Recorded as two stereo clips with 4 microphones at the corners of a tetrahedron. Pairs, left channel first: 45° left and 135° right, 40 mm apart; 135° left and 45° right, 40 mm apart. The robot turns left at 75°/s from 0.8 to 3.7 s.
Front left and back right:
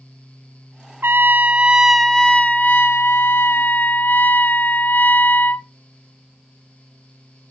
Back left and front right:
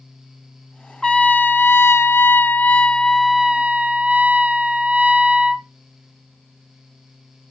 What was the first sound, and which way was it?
A trumpet, 155° right.